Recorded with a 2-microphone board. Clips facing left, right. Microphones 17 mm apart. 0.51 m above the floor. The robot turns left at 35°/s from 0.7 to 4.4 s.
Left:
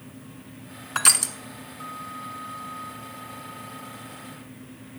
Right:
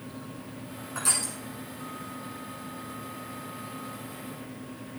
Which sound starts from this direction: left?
Crushing, at 0.9 s.